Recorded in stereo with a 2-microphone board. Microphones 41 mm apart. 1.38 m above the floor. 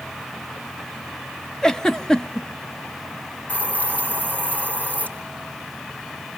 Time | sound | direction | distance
1.6 | a giggle | 20° left (ahead or behind) | 0.7 m
3.5 | a hiss | 45° left (ahead or behind) | 4 m